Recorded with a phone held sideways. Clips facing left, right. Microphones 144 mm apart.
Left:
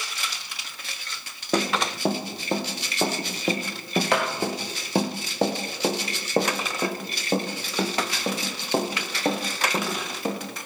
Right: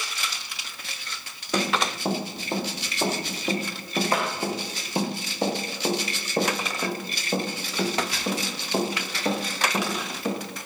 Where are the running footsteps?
60° left (ahead or behind), 4 m; by 10.4 s 40° left (ahead or behind), 5.5 m.